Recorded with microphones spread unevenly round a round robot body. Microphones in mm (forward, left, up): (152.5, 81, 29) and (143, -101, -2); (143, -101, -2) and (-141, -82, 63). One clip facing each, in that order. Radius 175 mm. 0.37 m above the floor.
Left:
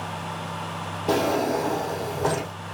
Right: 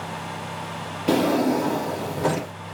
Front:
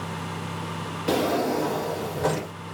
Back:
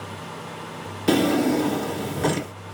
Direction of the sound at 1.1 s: 140° right.